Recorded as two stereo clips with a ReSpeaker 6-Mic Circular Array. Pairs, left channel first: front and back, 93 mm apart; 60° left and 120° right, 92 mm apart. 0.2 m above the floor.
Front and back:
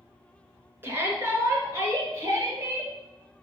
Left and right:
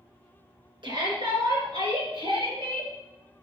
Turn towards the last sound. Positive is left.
turn(degrees=-125)